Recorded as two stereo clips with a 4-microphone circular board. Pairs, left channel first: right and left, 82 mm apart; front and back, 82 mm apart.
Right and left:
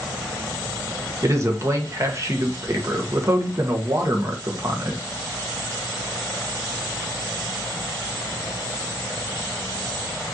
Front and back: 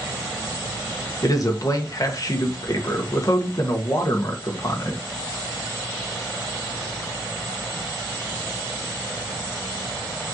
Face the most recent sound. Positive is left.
turn(degrees=40)